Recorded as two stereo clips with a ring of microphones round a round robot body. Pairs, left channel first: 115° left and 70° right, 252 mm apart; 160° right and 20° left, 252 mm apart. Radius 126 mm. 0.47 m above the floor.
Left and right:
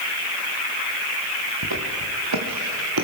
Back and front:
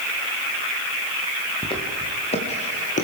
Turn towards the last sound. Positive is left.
turn(degrees=-95)